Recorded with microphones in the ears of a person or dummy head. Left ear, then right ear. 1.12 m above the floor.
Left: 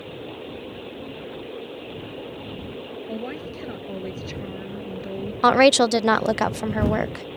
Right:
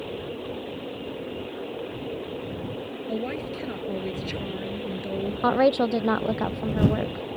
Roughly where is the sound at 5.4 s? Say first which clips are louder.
Left 6 dB; left.